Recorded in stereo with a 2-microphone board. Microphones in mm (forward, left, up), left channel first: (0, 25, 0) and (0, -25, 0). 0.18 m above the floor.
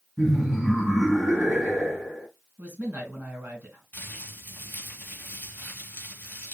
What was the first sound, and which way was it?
Laughter, centre (ahead or behind).